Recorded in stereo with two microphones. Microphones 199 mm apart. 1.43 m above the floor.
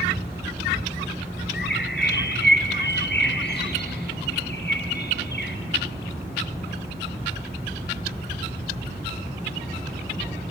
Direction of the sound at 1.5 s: 60° left (ahead or behind).